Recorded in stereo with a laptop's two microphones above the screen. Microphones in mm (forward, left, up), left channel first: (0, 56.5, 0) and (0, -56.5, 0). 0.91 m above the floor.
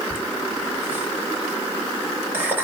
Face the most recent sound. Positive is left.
turn(degrees=-15)  # may be behind; listen again after turning